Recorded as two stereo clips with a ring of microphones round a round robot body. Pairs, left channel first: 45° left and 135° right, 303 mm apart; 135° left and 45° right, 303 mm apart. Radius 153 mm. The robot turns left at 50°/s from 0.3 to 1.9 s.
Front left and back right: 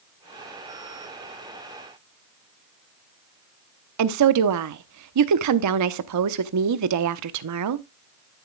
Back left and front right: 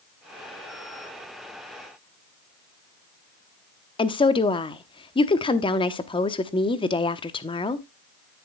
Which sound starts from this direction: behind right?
A woman speaking, at 4.0 s.